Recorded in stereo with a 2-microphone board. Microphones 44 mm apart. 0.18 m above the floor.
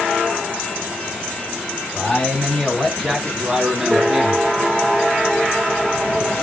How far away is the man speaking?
About 1.9 m.